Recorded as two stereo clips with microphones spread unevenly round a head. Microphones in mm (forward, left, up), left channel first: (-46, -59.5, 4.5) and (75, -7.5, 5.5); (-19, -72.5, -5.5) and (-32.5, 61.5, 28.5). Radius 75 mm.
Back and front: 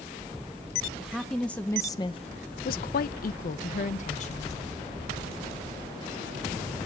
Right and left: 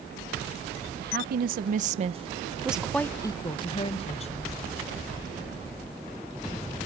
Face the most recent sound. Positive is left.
turn(degrees=-120)